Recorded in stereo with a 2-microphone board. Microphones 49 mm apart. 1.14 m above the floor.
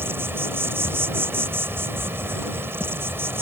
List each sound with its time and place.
0.0 s an insect: 55° right (ahead or behind)